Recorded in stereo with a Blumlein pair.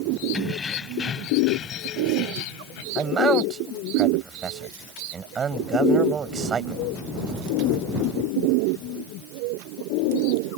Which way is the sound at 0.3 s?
15° left.